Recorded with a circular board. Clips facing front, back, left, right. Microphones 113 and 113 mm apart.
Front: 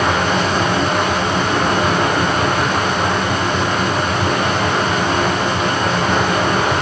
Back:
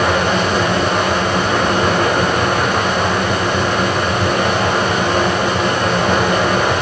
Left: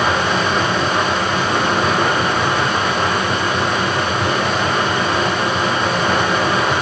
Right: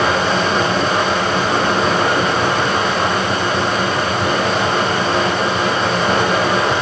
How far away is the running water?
About 4.5 m.